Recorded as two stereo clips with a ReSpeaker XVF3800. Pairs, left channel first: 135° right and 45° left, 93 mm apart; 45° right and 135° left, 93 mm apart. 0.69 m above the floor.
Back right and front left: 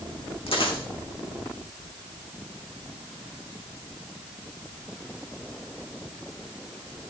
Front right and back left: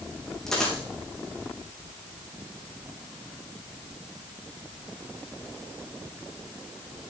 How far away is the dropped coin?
About 4 m.